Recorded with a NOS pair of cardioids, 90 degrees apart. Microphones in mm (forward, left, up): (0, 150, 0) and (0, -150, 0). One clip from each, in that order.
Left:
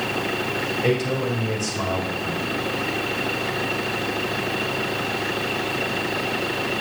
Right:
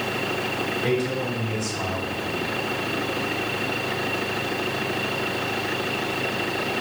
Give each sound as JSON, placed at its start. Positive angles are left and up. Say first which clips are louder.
{"t": 0.8, "sound": "a man speaking", "louder": "left 3 dB", "azimuth_deg": 15, "distance_m": 3.0}